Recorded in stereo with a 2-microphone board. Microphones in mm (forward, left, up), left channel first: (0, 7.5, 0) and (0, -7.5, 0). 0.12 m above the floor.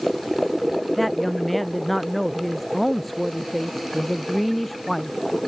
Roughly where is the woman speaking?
Centre.